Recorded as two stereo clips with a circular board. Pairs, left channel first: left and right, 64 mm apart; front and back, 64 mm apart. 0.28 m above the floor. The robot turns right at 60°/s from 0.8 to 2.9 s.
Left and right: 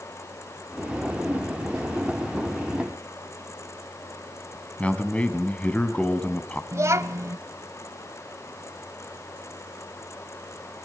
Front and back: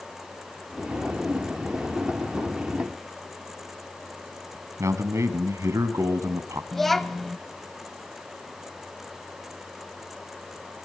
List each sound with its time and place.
4.8 s a man speaking: 155° left, 1.8 m
6.7 s a child speaking: 85° right, 0.7 m